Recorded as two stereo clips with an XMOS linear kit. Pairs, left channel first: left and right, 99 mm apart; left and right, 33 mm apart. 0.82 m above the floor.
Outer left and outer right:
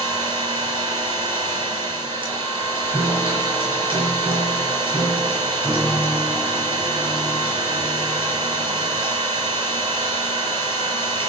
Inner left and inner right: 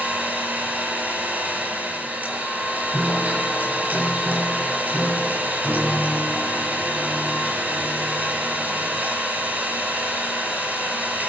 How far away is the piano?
About 4 m.